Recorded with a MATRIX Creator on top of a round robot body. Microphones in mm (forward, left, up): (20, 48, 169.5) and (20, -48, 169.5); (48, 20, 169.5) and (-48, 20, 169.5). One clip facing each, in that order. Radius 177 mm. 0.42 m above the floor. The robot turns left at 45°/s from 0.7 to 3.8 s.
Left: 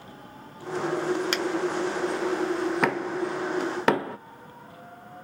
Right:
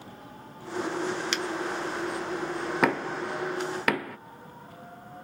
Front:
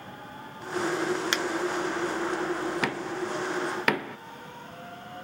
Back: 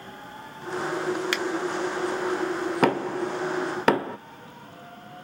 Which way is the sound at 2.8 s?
Straight behind.